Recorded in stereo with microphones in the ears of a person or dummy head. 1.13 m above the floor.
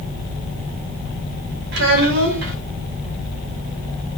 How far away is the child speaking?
About 2.5 m.